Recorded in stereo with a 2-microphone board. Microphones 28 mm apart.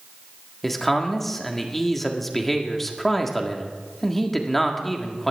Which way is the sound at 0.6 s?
5° left (ahead or behind).